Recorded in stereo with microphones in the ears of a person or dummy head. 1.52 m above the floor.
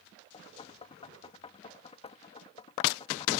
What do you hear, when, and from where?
0.3 s knocking: 35° left (ahead or behind)